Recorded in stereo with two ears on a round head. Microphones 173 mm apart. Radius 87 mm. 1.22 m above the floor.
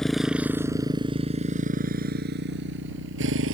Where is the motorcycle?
Centre (ahead or behind); by 3.5 s 75° right (ahead or behind).